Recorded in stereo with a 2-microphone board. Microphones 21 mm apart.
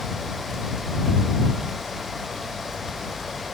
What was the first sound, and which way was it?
Only background noise.